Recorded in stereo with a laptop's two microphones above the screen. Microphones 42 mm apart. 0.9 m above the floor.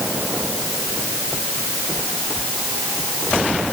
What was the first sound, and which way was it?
Only background noise.